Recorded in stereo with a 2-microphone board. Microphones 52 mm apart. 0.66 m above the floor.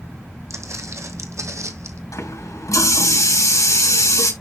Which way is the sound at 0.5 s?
65° right (ahead or behind).